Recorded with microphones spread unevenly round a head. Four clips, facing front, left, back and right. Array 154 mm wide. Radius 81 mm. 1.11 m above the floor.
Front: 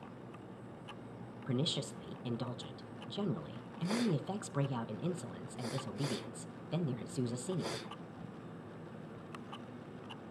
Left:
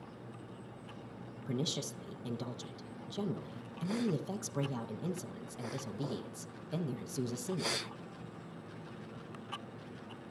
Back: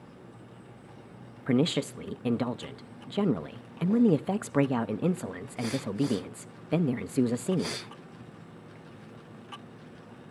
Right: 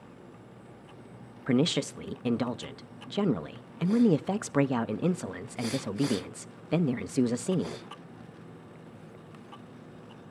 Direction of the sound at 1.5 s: 145° right.